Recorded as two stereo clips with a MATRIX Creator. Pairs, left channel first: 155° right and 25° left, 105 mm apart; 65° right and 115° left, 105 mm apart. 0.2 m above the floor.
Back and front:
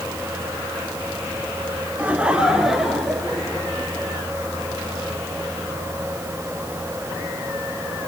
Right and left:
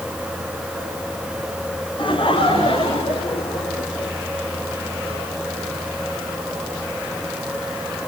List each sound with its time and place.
2.0 s laughter: 50° right, 2 m; by 4.1 s 80° right, 3.5 m